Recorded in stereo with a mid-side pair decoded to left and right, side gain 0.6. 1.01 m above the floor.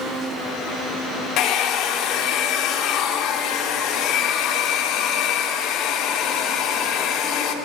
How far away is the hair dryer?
About 3 m.